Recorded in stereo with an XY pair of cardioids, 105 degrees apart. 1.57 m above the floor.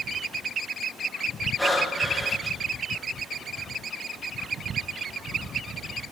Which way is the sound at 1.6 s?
15° left.